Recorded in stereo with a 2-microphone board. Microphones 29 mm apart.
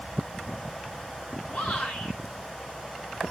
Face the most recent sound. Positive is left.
turn(degrees=70)  # may be behind; listen again after turning